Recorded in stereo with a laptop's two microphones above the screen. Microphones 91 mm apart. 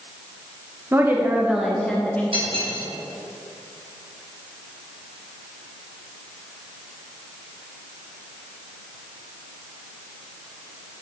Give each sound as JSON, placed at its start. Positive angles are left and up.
{"t": 0.9, "sound": "a woman speaking", "side_deg": -25, "distance_m": 1.0}
{"t": 2.3, "sound": "cutlery clinking", "side_deg": -80, "distance_m": 3.0}